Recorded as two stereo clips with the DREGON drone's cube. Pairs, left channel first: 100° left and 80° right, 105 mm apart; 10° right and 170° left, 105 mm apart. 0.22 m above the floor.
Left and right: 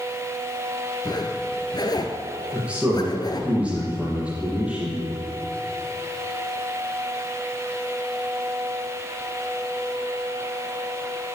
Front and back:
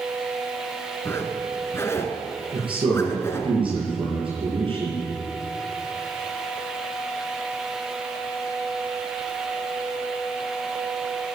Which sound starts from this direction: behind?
A man speaking, at 2.5 s.